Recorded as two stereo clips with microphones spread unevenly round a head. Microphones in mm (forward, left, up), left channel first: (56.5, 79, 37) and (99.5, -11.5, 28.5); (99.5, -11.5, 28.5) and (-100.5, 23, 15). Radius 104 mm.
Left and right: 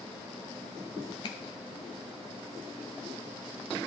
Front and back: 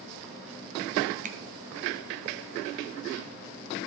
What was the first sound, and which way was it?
A finger snap, 125° left.